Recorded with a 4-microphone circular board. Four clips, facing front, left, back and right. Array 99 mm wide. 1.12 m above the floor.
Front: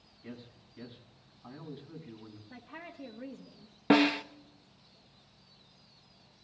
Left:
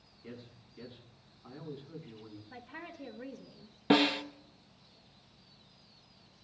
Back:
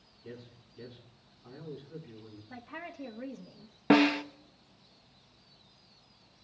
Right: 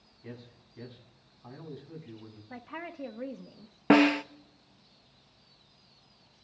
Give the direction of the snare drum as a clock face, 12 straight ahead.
3 o'clock.